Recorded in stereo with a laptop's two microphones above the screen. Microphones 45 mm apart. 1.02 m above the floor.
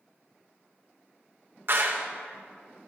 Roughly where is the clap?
Right.